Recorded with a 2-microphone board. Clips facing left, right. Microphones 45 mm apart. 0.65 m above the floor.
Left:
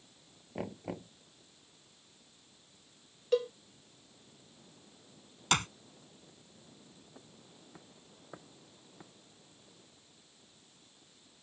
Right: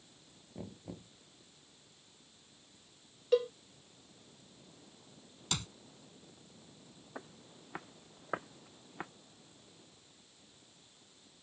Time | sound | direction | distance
0.6 | knocking | 85° left | ?
3.3 | a cowbell | 5° right (ahead or behind) | ?
5.5 | a clap | 60° left (ahead or behind) | ?
7.2 | footsteps | 80° right | ?